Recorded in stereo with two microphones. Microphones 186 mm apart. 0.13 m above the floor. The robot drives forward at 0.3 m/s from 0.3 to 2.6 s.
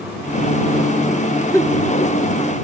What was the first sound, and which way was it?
A giggle, 15° left (ahead or behind).